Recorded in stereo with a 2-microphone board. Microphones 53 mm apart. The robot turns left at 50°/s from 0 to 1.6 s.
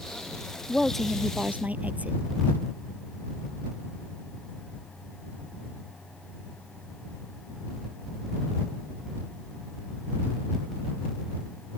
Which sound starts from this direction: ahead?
A woman speaking, at 0.7 s.